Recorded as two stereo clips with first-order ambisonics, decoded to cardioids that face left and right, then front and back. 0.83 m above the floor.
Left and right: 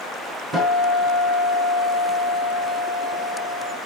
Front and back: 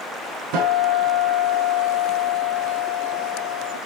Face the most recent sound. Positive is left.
turn(degrees=-165)